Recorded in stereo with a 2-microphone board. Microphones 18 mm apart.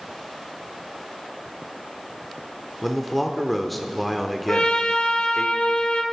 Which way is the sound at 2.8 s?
Centre (ahead or behind).